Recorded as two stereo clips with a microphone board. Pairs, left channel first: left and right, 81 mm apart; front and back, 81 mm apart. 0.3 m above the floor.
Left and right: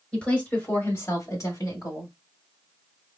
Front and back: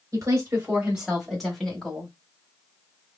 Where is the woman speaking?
160° left, 1.4 m; by 2.1 s 75° left, 2 m.